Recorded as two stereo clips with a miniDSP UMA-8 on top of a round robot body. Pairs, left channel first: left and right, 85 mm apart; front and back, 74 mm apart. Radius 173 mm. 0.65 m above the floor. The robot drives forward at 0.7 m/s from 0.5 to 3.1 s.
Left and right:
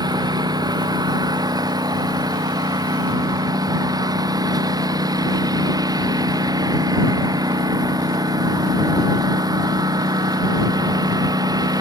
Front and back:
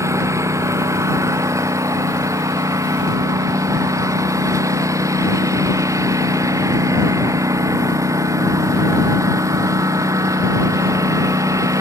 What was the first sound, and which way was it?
A lawn mower, 130° right.